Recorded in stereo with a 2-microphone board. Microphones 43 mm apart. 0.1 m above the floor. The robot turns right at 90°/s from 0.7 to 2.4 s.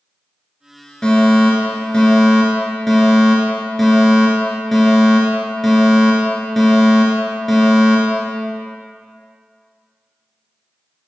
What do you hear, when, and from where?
1.0 s a fire alarm: 20° left (ahead or behind), 2 m; by 8.7 s 5° left (ahead or behind), 2 m